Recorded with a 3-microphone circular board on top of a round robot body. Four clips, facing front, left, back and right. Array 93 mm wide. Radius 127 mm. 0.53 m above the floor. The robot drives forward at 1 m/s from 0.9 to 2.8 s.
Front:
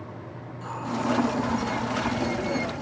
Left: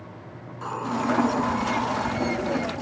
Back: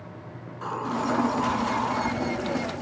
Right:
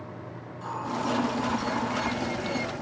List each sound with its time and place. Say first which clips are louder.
0.5 s a hiss: left 4 dB, back 3 dB; 140° left, 4.5 m; by 2.1 s 145° left, 5.5 m